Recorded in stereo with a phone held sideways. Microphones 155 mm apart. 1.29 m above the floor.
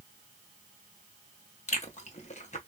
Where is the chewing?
50° left (ahead or behind), 0.9 m.